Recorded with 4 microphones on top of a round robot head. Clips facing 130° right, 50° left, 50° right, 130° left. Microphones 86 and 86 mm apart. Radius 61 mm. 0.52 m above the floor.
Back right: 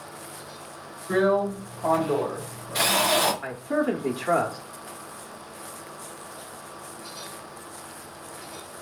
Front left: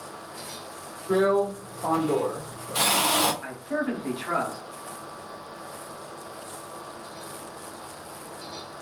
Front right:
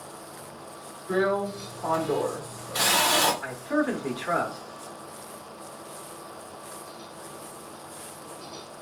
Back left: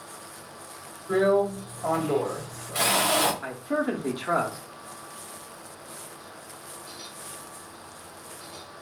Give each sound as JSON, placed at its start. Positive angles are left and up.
{"t": 1.1, "sound": "a drill", "azimuth_deg": 15, "distance_m": 2.0}
{"t": 3.4, "sound": "a man speaking", "azimuth_deg": -155, "distance_m": 0.8}